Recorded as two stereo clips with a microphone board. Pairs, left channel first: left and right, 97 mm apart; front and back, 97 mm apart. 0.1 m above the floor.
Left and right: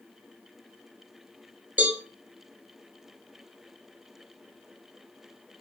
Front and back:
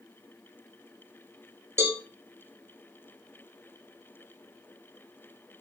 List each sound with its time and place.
1.8 s a cowbell: 145° right, 1.0 m